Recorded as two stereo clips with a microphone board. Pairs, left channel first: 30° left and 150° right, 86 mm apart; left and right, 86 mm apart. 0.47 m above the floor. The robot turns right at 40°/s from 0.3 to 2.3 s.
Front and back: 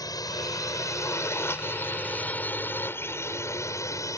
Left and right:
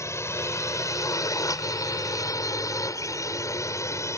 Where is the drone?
50° left; by 4.2 s 55° left.